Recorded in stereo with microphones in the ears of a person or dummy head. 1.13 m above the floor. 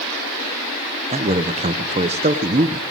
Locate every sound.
1.1 s a man speaking: 30° right (ahead or behind), 0.8 m